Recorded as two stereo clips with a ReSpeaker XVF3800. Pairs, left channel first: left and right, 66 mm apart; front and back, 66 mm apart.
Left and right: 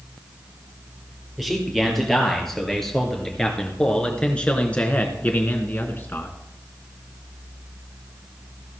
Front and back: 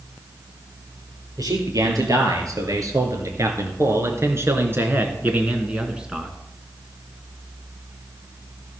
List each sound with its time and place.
1.4 s a man speaking: straight behind, 4 m; by 6.4 s 100° left, 1.9 m